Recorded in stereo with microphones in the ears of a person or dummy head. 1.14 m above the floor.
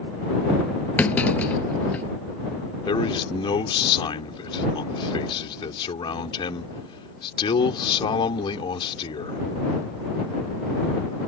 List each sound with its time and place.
1.0 s a clunk: 10° left (ahead or behind)
2.9 s a man speaking: 30° left (ahead or behind)